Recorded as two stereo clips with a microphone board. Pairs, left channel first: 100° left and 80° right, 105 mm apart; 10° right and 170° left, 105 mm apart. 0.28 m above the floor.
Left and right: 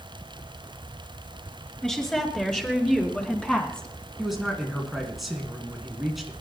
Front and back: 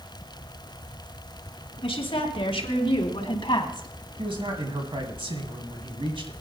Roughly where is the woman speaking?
Ahead.